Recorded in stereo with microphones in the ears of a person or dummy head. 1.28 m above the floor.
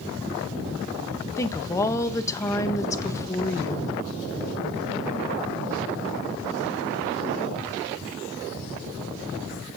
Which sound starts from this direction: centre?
A woman speaking, at 1.4 s.